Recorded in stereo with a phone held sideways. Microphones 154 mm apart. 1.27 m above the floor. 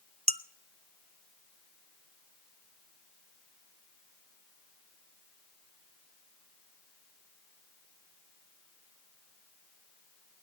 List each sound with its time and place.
0.3 s dishes clattering: 40° right (ahead or behind), 0.5 m